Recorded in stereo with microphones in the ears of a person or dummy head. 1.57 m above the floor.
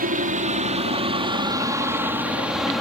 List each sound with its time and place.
0.0 s a helicopter: 40° right (ahead or behind); by 2.8 s 5° left (ahead or behind)